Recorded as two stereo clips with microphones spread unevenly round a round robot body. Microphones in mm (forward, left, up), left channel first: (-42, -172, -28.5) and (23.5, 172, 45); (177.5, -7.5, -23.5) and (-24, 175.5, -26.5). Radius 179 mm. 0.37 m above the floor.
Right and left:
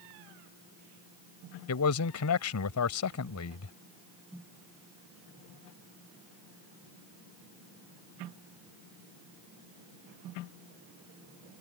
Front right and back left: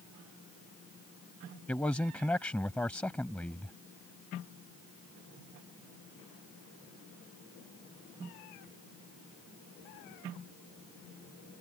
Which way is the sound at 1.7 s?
125° right.